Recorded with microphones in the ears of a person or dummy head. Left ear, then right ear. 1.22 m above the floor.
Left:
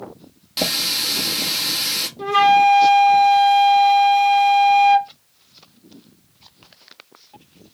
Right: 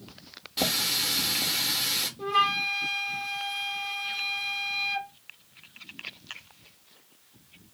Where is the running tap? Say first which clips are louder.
Left 6 dB; 40° left (ahead or behind), 1.2 m.